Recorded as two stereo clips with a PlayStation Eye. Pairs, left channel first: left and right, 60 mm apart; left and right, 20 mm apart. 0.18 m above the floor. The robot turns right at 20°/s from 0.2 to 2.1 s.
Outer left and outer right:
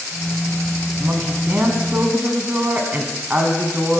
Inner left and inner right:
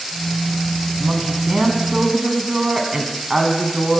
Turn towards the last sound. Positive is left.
turn(degrees=-30)  # may be behind; listen again after turning